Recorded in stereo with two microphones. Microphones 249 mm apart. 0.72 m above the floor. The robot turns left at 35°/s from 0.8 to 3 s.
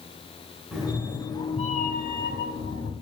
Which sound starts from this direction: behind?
A cat meowing, at 0.7 s.